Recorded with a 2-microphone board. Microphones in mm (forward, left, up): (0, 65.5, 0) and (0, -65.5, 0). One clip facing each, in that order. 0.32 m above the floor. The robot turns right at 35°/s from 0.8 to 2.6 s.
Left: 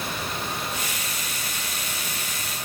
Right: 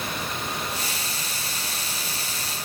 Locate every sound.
Only background noise.